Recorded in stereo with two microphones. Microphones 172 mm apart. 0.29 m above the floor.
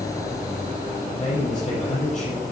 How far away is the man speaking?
About 7.5 m.